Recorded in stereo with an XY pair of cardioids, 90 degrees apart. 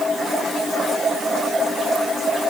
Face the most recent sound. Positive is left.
No sound to turn to.